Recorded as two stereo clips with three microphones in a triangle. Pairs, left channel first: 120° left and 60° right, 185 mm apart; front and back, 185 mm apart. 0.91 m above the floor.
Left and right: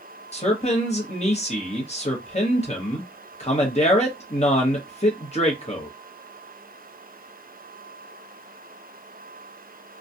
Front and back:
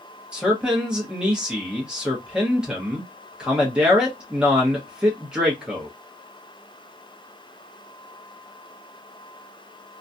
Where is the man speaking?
95° left, 1.2 m.